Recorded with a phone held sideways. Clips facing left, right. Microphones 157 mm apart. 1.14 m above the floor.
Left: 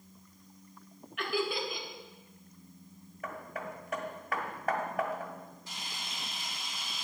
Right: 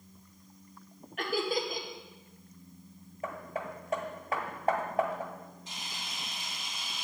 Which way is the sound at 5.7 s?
20° right (ahead or behind).